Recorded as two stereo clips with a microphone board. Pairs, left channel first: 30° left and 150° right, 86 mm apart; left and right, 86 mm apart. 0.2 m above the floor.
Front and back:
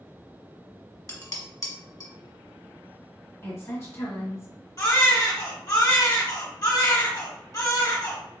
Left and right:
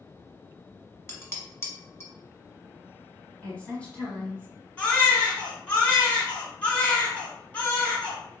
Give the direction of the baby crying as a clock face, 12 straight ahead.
11 o'clock.